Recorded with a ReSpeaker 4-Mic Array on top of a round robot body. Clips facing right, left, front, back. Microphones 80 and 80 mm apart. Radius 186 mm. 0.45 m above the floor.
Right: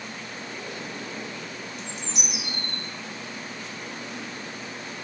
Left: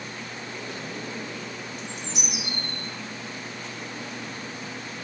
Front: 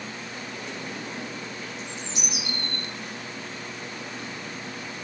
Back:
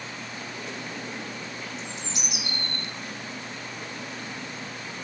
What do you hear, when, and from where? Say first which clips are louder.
1.8 s a bird: left 1 dB, front 1 dB; 175° left, 2.5 m